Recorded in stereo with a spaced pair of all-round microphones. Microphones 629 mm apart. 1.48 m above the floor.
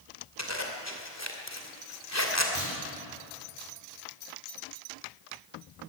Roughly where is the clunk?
Left.